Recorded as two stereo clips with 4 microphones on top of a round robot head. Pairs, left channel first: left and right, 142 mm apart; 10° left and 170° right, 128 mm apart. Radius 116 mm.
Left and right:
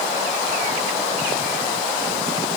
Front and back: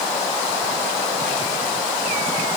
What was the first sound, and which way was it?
Only background noise.